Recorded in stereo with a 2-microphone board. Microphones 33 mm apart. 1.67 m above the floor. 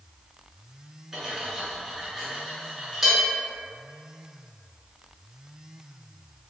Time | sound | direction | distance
1.1 | cutlery clinking | 5° right (ahead or behind) | 0.9 m